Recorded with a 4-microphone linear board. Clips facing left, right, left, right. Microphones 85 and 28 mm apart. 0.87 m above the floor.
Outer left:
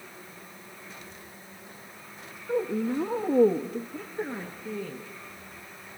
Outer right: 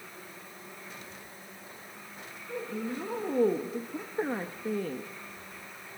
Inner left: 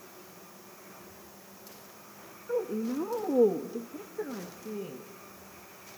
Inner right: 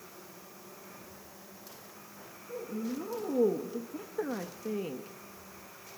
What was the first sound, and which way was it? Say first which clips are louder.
A woman speaking: outer left 8 dB, inner left 6 dB; 40° left (ahead or behind).